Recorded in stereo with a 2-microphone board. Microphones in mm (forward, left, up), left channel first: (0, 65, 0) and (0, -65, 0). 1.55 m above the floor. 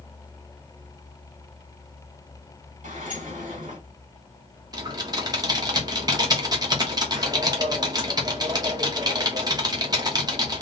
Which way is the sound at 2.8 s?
80° right.